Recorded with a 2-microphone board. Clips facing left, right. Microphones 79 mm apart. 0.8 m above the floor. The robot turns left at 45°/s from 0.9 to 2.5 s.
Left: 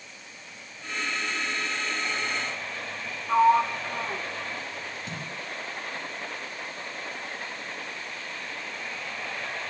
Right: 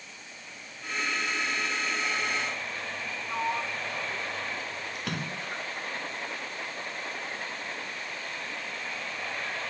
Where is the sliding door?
50° left (ahead or behind).